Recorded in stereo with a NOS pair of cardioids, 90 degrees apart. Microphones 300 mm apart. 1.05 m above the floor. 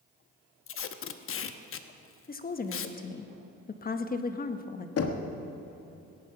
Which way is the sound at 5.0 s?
50° left.